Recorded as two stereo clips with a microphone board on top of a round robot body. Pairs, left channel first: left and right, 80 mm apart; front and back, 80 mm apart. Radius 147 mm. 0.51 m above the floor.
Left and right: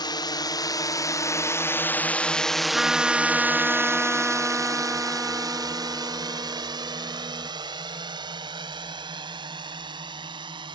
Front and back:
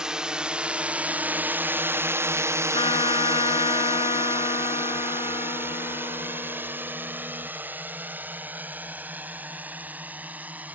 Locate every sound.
0.0 s a drone: 100° left; by 10.8 s 110° right
2.7 s a trumpet: straight ahead